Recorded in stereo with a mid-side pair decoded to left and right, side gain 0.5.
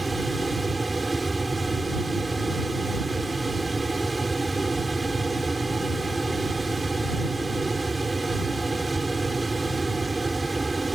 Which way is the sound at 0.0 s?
15° right.